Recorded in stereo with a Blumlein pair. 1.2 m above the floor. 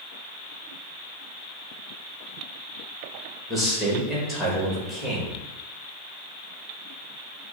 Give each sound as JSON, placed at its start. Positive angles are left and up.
{"t": 3.5, "sound": "a man speaking", "azimuth_deg": 20, "distance_m": 1.9}